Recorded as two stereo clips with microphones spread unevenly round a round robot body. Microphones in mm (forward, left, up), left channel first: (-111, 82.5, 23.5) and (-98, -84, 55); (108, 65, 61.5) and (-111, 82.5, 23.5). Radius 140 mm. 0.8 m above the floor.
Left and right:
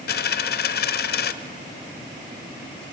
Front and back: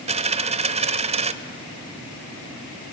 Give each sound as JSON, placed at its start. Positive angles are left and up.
{"t": 0.1, "sound": "a dropped coin", "azimuth_deg": 110, "distance_m": 0.8}